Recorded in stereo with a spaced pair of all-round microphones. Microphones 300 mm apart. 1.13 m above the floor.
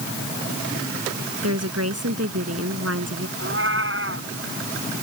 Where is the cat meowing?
45° right (ahead or behind).